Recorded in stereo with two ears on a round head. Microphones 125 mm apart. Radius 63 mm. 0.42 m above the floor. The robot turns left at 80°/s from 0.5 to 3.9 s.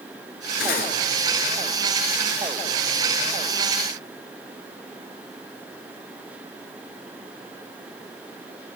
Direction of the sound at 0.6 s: 80° left.